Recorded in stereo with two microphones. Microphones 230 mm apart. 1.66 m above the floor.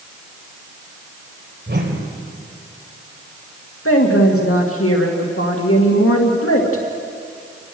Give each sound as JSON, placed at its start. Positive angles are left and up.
{"t": 1.7, "sound": "a whoosh", "side_deg": -55, "distance_m": 3.0}
{"t": 3.9, "sound": "a woman speaking", "side_deg": 80, "distance_m": 2.5}